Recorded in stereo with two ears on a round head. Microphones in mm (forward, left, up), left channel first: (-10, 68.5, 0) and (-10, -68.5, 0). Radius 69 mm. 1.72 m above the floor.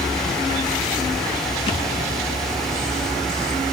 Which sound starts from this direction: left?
A thud, at 1.7 s.